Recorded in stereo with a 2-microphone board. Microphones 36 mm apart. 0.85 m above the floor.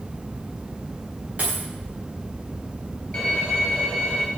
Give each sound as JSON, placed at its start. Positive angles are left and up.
{"t": 1.4, "sound": "a dropped coin", "side_deg": -40, "distance_m": 7.0}
{"t": 3.1, "sound": "a violin", "side_deg": 25, "distance_m": 3.0}